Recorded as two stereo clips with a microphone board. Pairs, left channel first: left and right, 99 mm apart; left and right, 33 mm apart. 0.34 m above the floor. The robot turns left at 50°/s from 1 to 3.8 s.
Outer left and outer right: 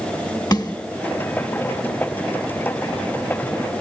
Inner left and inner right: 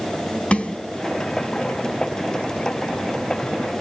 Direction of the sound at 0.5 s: 45° left (ahead or behind).